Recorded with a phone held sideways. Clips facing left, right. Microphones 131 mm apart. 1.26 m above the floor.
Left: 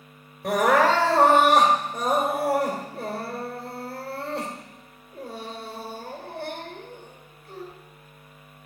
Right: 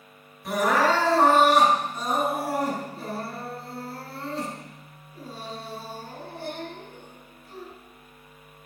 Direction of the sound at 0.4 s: 75° left (ahead or behind).